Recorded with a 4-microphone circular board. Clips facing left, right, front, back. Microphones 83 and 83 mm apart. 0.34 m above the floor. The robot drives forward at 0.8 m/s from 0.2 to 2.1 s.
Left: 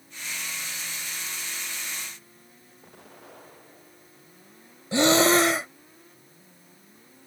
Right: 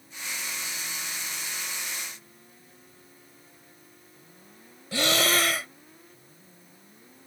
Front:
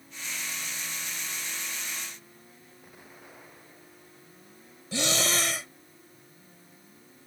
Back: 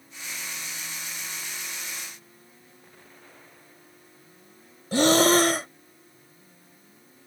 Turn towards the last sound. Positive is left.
turn(degrees=150)